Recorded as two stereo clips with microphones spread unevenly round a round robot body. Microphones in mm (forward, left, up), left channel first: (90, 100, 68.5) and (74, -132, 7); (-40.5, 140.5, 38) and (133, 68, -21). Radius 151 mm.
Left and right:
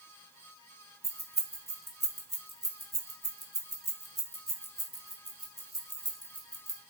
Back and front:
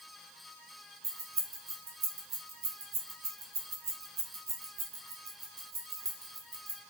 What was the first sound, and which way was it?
Keys jangling, 20° right.